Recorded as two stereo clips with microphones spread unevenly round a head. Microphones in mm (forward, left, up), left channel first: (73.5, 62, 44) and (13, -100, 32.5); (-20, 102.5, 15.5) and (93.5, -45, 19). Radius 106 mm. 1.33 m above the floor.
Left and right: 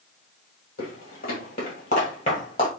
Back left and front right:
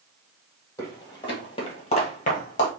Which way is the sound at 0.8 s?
60° left.